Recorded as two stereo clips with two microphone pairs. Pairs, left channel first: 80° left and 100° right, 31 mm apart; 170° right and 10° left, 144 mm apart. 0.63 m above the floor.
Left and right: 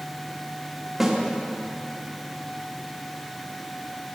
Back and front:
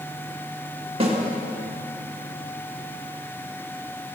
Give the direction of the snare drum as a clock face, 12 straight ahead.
1 o'clock.